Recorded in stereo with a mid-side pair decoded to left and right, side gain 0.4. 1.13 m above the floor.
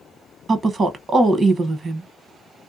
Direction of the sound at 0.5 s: 55° right.